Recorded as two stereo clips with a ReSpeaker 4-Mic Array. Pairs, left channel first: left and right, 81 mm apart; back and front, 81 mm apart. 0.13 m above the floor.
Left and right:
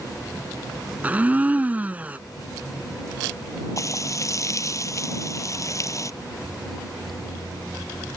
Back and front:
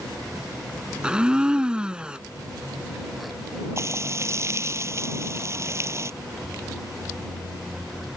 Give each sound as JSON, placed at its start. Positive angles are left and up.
{"t": 1.0, "sound": "a blender", "azimuth_deg": -60}
{"t": 3.8, "sound": "frying", "azimuth_deg": 50}